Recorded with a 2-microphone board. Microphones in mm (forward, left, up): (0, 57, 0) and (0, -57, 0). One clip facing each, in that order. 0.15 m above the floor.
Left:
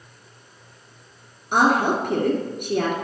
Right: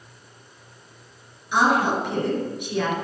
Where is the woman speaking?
50° left (ahead or behind), 2 m.